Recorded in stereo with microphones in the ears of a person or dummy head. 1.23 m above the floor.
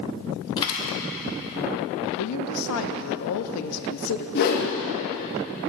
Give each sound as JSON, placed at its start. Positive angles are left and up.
{"t": 0.6, "sound": "a dropped coin", "side_deg": 20, "distance_m": 1.1}
{"t": 2.2, "sound": "a woman speaking", "side_deg": 90, "distance_m": 0.6}
{"t": 4.3, "sound": "a whoosh", "side_deg": 60, "distance_m": 1.0}